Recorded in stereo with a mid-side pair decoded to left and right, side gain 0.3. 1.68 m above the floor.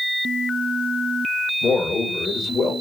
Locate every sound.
1.6 s a man speaking: 65° left, 2.0 m